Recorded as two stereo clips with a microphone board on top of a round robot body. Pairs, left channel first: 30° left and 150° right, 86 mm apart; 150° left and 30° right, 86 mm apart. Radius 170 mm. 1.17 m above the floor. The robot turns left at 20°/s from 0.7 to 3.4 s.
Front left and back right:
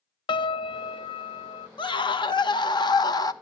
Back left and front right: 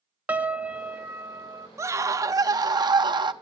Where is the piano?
45° left, 0.8 m; by 1.7 s 25° left, 0.8 m.